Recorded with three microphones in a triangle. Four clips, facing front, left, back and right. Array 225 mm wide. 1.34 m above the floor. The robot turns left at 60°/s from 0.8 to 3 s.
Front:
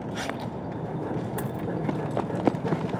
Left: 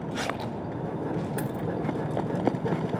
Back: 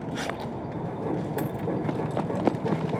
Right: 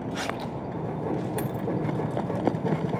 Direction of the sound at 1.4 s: 165° right.